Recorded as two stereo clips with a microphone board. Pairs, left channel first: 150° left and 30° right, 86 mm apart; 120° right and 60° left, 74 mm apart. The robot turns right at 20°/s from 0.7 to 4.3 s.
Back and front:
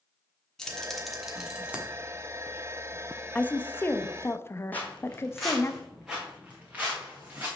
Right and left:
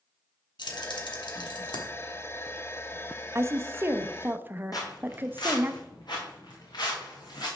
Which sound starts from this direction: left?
A woman speaking, at 3.4 s.